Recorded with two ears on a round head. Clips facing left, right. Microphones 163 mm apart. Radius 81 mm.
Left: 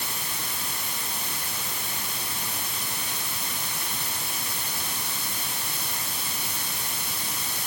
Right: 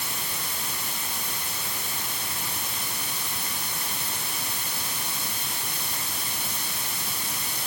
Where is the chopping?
I don't hear chopping.